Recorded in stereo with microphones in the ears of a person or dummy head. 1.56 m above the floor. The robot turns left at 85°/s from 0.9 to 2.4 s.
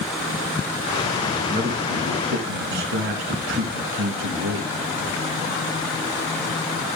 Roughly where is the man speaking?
Ahead right.